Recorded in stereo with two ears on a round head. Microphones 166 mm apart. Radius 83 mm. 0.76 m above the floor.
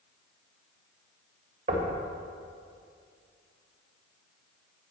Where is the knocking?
45° right (ahead or behind), 1.9 m.